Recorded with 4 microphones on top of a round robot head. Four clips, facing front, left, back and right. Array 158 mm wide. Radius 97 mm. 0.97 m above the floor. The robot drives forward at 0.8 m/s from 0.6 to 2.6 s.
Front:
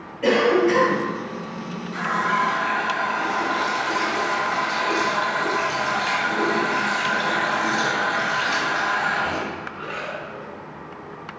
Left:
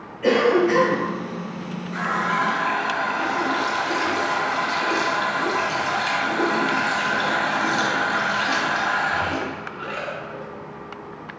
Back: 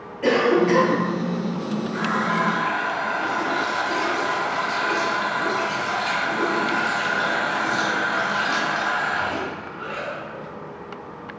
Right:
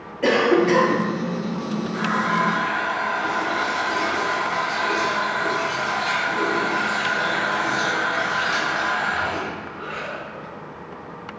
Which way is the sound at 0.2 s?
85° right.